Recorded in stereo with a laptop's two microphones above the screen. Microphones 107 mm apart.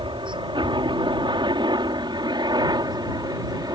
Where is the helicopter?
50° right (ahead or behind); by 3.8 s 35° right (ahead or behind).